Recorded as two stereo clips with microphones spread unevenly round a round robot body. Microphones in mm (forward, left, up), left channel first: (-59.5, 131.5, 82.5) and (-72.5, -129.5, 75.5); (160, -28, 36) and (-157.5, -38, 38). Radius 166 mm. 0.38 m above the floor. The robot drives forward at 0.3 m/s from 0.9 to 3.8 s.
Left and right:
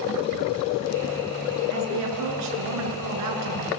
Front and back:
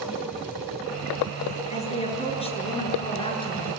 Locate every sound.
1.7 s a woman speaking: 70° right, 7 m; by 3.7 s 75° right, 7 m